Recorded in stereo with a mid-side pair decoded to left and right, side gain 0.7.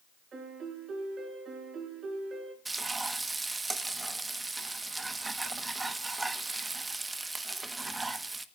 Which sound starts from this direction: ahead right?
A piano, at 0.3 s.